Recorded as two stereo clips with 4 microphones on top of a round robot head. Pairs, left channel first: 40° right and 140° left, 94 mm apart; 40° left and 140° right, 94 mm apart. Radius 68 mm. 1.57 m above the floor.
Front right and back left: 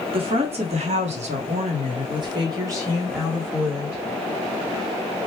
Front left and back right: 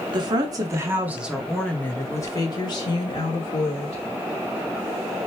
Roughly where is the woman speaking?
Behind.